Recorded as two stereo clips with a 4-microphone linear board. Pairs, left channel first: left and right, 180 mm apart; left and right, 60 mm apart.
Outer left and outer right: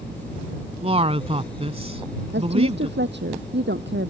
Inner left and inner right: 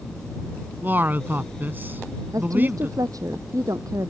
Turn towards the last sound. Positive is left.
turn(degrees=-75)  # may be behind; listen again after turning